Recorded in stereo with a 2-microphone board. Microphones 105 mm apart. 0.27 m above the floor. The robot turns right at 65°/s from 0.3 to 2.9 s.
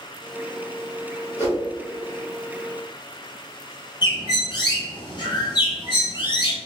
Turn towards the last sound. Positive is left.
turn(degrees=45)  # may be behind; listen again after turning